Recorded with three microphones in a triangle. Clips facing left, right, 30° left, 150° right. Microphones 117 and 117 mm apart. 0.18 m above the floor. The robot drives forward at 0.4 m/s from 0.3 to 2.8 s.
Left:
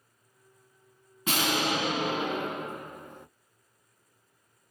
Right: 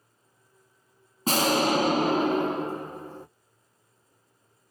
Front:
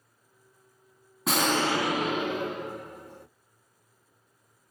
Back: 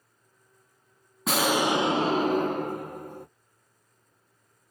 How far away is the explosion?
About 0.6 m.